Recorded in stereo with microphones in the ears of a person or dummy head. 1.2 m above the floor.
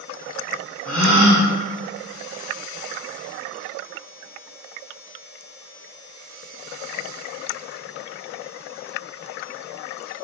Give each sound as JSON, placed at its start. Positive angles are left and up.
{"t": 0.8, "sound": "a gasp", "side_deg": 5, "distance_m": 0.8}